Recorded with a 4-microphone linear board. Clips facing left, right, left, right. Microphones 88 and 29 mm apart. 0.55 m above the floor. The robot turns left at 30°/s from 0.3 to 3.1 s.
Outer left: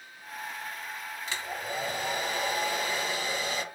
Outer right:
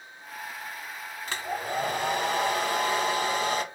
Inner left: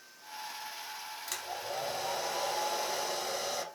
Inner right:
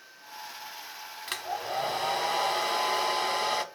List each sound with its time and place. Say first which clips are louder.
1.3 s a hair dryer: outer right 5 dB, inner right 6 dB; 60° right, 0.6 m; by 3.6 s 115° right, 0.6 m